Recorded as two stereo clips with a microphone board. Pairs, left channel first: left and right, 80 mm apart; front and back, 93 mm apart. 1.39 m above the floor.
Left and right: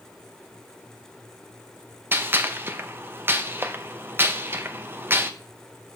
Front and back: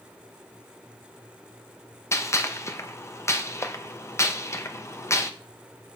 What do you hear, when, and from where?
2.1 s a gunshot: 40° right, 0.6 m